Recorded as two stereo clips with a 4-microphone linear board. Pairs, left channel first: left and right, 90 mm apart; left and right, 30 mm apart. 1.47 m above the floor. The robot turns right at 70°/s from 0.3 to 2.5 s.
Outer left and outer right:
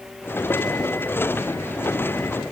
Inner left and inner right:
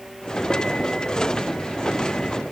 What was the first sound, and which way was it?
Only background noise.